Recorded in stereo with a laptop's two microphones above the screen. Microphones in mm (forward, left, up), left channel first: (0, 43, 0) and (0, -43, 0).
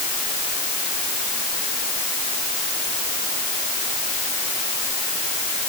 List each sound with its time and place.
Only background noise.